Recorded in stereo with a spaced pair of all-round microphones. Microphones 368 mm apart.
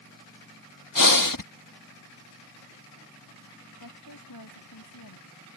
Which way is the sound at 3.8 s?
75° left (ahead or behind).